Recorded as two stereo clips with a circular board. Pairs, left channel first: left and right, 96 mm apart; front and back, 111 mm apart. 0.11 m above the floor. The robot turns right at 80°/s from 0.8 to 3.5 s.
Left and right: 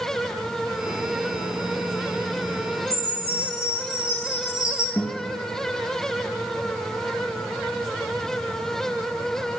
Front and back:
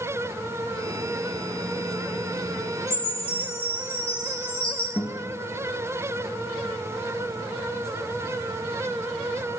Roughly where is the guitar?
Ahead left.